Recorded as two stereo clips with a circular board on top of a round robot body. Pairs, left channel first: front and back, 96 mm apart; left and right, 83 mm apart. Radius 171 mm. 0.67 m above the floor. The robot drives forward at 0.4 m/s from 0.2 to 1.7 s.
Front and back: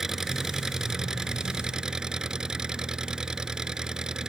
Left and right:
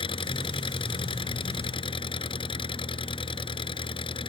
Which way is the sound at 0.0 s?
95° left.